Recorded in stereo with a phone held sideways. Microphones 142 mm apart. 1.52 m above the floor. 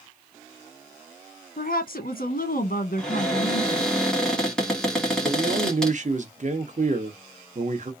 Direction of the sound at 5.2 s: 55° right (ahead or behind).